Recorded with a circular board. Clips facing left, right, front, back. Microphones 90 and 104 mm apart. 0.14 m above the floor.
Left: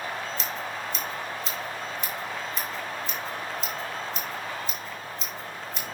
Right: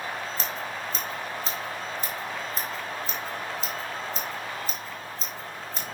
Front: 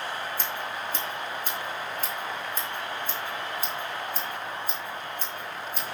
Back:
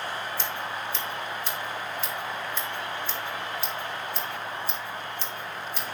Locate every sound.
0.4 s scissors: 45° right, 5.5 m